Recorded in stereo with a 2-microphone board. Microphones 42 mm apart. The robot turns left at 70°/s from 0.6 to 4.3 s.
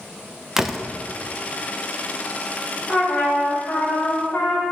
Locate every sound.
0.6 s a door slam: 15° right (ahead or behind), 0.5 m; by 0.8 s centre (ahead or behind), 0.5 m
2.9 s a trumpet: 160° left, 2.5 m; by 4.7 s 60° left, 2.5 m